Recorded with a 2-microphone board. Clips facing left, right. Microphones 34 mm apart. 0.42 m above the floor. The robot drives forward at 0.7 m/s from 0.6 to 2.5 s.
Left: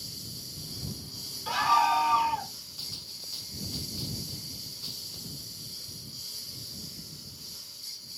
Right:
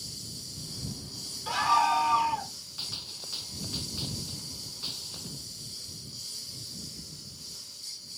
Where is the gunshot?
30° right (ahead or behind).